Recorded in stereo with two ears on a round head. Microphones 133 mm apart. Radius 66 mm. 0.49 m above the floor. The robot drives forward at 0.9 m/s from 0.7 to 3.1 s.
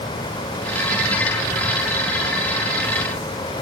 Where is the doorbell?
I don't hear a doorbell.